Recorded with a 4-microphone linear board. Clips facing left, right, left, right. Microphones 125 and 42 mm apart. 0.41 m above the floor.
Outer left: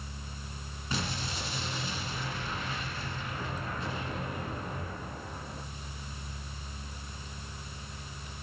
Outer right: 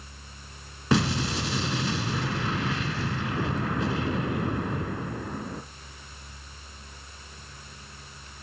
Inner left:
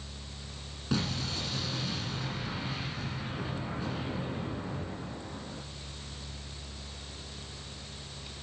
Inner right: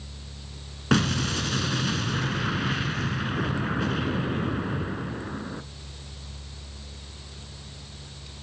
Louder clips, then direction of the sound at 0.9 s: Outer right 11 dB, inner right 9 dB; 80° right.